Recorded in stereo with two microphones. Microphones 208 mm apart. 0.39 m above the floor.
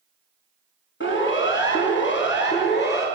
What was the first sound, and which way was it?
A siren, 65° left (ahead or behind).